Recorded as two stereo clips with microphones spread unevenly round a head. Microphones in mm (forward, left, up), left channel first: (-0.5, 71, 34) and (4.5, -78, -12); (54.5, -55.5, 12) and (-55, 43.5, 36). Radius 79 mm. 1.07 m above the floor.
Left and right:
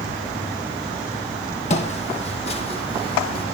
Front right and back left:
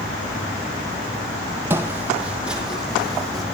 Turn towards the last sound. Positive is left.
turn(degrees=50)